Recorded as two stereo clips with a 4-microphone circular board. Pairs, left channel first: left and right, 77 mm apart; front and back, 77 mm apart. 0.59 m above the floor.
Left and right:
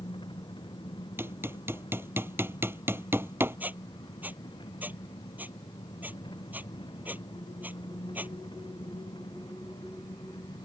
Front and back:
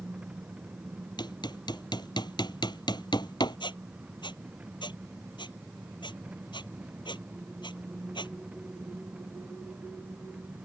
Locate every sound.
0.0 s an engine running: 105° left
1.2 s hammering: 30° right
3.6 s a squeak: 20° right